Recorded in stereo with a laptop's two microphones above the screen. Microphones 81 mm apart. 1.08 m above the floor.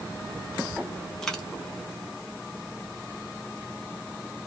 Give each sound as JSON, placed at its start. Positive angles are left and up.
{"t": 1.2, "sound": "a dropped coin", "side_deg": 5, "distance_m": 0.9}